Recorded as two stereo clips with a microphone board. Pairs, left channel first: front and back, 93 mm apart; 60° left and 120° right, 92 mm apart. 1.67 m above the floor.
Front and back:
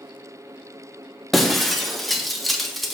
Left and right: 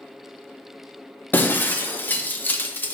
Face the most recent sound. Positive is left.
turn(degrees=85)